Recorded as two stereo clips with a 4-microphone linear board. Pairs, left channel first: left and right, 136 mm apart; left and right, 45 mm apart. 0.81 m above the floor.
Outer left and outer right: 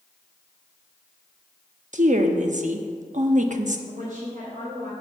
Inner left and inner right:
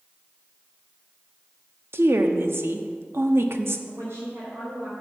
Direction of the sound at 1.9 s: 65° right (ahead or behind).